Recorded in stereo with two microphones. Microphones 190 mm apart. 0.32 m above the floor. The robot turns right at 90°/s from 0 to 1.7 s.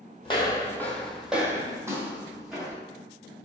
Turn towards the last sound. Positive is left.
turn(degrees=0)  # may be behind; listen again after turning